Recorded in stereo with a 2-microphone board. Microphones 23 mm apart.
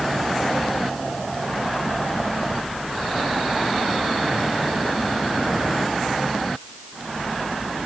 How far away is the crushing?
I don't hear crushing.